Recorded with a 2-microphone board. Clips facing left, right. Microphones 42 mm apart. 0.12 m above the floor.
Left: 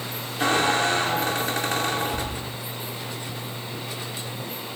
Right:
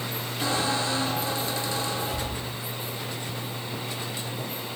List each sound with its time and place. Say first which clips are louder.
0.4 s a squeak: left 6 dB; 50° left (ahead or behind), 1.3 m